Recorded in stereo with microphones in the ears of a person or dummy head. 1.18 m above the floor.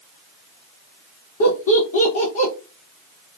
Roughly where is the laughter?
Left.